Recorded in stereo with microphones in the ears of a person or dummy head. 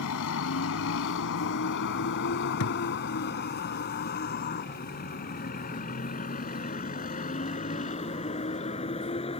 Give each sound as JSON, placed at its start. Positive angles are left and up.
{"t": 0.0, "sound": "a vehicle", "side_deg": 75}
{"t": 2.6, "sound": "a thud", "side_deg": 85}